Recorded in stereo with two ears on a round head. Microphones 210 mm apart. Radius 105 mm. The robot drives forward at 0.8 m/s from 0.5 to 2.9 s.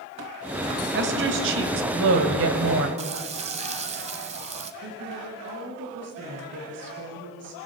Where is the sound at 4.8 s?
55° right (ahead or behind), 6 m.